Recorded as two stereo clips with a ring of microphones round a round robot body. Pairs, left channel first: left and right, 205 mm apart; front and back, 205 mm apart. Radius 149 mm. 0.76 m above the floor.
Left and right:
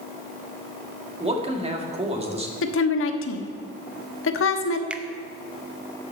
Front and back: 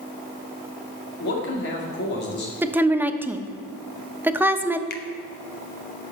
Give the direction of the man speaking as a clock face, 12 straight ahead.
1 o'clock.